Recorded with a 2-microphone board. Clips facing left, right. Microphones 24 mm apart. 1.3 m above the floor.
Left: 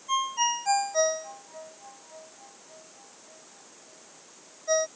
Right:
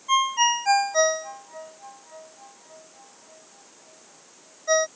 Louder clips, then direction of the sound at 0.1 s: Right 6 dB; 35° right (ahead or behind).